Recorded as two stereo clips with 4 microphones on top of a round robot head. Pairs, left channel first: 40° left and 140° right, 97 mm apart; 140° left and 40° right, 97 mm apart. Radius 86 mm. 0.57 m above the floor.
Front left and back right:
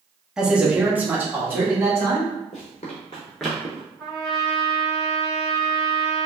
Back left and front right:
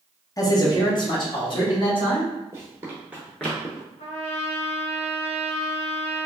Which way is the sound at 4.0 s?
130° left.